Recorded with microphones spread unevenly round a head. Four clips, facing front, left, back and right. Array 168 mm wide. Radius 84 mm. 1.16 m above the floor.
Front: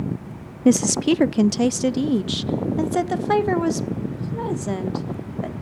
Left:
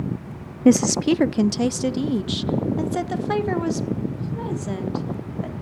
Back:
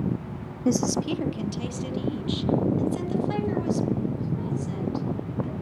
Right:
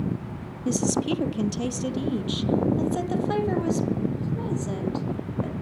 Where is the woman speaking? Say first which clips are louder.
Left 8 dB, front 7 dB; 50° left, 0.5 m; by 5.5 s 5° left, 3 m.